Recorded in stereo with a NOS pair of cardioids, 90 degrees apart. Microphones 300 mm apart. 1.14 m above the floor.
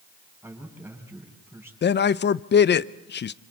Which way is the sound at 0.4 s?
10° right.